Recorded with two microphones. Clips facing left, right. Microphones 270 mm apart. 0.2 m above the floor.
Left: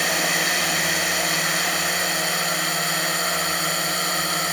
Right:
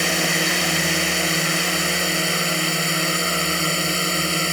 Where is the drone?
30° right (ahead or behind).